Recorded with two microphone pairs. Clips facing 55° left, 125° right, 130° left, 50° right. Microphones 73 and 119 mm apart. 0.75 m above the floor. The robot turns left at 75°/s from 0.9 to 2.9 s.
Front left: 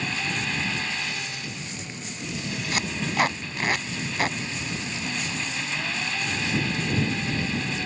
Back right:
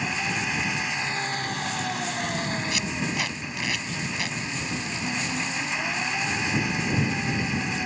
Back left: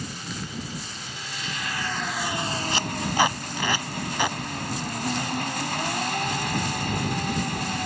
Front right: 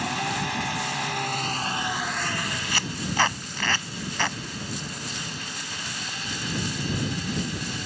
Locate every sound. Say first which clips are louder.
0.0 s an engine running: back right 1 dB, front right 8 dB; 50° right; by 7.9 s 160° left
2.7 s tape being pulled: front left 2 dB, back left 2 dB; 70° left; by 4.4 s 55° left